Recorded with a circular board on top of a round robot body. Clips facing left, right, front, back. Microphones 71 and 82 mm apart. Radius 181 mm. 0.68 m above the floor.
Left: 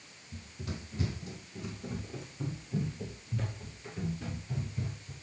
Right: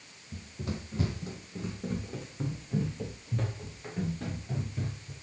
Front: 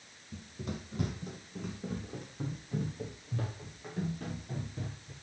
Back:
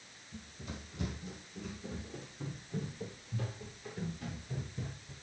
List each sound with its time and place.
0.3 s running footsteps: 40° right, 2 m